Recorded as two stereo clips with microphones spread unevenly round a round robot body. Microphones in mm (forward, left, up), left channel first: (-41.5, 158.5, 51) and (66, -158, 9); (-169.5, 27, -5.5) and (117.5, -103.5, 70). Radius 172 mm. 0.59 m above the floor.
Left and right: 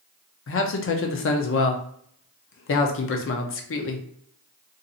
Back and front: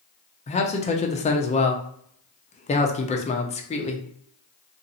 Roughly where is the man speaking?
Behind left.